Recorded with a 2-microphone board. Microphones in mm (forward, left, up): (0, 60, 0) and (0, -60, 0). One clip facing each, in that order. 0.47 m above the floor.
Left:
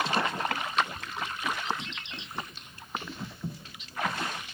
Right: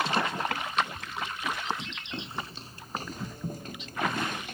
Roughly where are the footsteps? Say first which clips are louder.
Right 4 dB; right.